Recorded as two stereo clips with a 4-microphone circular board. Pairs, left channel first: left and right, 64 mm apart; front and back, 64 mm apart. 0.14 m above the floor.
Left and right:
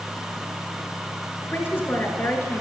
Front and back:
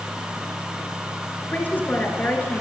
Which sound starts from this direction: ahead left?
A man speaking, at 1.5 s.